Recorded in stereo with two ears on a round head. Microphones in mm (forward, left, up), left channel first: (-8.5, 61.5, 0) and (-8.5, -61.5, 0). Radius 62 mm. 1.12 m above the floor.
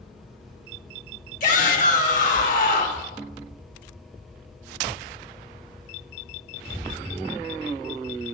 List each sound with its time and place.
1.4 s a shout: 60° left (ahead or behind), 1.7 m